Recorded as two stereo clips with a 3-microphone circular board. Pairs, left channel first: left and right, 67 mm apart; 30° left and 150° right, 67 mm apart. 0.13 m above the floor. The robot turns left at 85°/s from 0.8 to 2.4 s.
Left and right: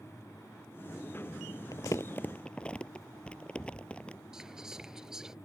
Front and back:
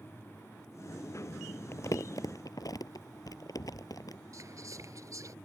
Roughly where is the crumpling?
Left.